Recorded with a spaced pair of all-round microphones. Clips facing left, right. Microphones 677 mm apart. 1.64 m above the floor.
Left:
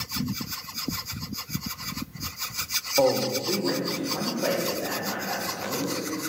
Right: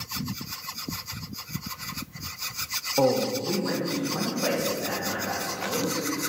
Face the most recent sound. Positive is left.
turn(degrees=-35)  # may be behind; listen again after turning